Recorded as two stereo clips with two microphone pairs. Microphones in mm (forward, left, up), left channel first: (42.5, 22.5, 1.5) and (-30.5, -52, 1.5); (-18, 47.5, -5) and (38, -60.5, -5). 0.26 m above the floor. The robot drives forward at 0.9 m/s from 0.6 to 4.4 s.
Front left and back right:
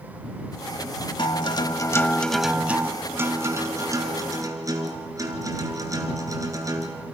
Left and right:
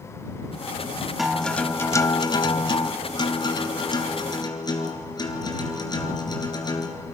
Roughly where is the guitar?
Ahead left.